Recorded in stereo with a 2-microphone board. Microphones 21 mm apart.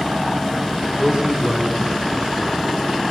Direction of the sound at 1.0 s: 45° right (ahead or behind).